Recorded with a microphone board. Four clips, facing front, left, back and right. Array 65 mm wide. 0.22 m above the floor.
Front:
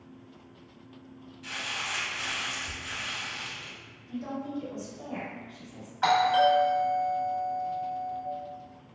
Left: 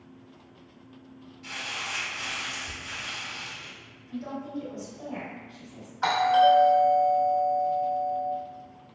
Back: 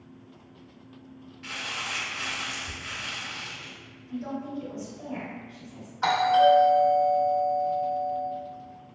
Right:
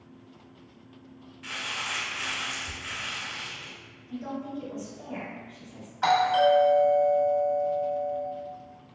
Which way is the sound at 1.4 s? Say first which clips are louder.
Right 1 dB, back 1 dB; 130° right.